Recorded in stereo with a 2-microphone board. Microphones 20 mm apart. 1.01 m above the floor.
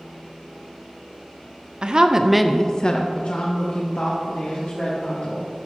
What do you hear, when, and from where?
1.8 s a woman speaking: 45° right (ahead or behind), 0.8 m; by 5.5 s 80° left, 3 m